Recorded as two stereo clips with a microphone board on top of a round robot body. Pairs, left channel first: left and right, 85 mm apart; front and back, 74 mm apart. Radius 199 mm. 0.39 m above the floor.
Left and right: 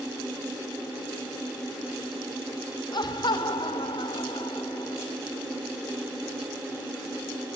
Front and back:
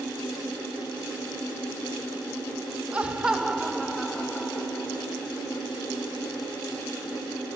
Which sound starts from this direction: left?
Laughter, at 2.9 s.